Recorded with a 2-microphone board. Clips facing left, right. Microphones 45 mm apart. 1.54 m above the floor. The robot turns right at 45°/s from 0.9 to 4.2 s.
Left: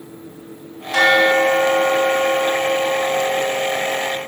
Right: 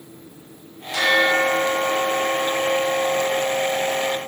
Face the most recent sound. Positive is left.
turn(degrees=-130)